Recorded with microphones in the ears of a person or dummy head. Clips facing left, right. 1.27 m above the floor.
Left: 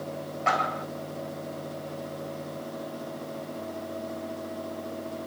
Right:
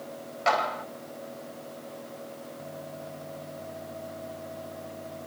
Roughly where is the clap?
Right.